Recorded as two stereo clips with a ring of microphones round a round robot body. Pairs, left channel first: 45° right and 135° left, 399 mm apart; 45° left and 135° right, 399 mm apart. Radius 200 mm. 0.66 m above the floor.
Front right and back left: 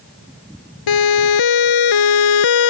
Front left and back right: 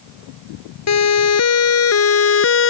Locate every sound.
0.9 s a siren: 5° right; by 2.7 s 15° right